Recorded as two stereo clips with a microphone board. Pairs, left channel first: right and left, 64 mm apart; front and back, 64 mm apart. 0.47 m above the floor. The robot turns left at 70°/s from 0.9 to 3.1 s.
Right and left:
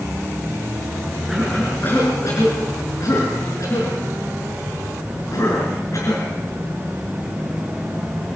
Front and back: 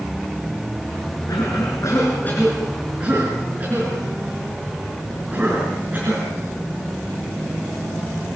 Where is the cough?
10° left, 5.5 m; by 6.3 s 120° right, 5.5 m.